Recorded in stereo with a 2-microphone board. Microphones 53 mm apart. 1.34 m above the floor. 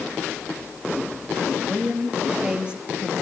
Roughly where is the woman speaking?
Centre.